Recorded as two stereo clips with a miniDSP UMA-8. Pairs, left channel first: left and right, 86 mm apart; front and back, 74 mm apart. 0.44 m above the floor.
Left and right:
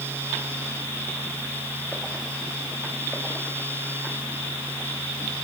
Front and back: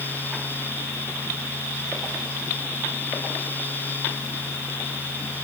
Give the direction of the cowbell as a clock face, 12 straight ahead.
No cowbell in this recording.